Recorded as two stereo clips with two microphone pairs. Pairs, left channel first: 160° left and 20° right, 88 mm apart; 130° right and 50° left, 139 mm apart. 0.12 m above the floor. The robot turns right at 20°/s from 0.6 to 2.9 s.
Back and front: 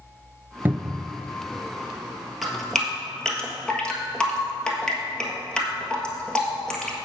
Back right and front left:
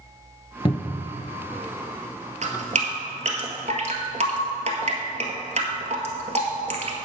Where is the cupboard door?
85° right, 0.5 m; by 1.1 s 75° right, 0.5 m.